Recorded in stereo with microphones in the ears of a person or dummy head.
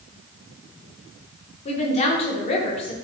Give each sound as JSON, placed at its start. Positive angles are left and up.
{"t": 1.6, "sound": "a woman speaking", "side_deg": 35, "distance_m": 0.9}